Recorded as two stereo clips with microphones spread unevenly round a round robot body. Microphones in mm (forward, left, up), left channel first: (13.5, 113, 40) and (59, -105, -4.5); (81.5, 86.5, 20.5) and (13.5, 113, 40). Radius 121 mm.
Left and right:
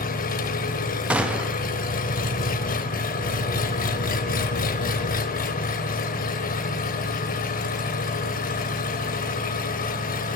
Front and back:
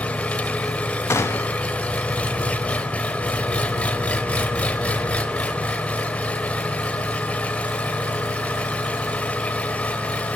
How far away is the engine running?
About 1.1 m.